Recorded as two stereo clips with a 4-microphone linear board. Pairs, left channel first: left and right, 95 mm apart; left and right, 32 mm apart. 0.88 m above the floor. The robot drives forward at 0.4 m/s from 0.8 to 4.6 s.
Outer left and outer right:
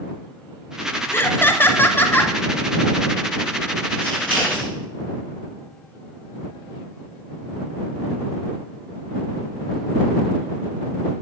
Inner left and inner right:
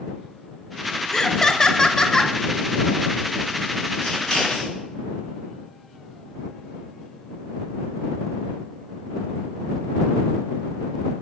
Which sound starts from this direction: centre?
Scissors, at 4.0 s.